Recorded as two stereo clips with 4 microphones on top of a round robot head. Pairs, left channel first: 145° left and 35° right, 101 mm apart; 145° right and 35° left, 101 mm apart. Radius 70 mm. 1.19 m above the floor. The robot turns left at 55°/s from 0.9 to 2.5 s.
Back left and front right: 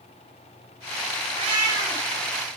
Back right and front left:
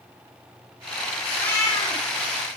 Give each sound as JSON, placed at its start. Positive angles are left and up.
{"t": 1.4, "sound": "a cat meowing", "azimuth_deg": -70, "distance_m": 1.7}